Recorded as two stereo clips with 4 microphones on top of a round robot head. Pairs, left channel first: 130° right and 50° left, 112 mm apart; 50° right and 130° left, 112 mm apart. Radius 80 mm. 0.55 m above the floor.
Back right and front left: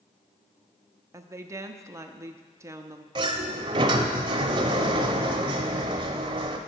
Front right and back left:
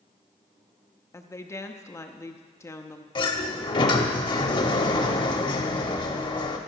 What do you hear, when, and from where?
1.1 s a woman speaking: straight ahead, 0.8 m
3.1 s a sliding door: straight ahead, 0.8 m